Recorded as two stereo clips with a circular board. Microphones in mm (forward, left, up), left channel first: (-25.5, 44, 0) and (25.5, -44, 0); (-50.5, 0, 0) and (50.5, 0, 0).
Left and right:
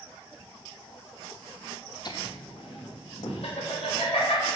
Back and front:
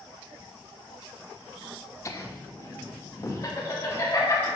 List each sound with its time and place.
2.0 s laughter: 135° left, 0.7 m; by 4.5 s 120° left, 2.5 m